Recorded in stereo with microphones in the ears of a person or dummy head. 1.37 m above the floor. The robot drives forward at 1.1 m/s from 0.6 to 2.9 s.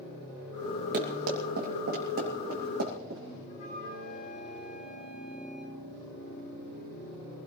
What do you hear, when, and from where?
0.9 s running footsteps: 55° right (ahead or behind), 3 m
3.5 s a flute: 55° left (ahead or behind), 9 m